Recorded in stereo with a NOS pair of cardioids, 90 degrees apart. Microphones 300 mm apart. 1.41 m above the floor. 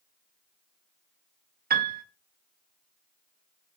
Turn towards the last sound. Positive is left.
turn(degrees=-30)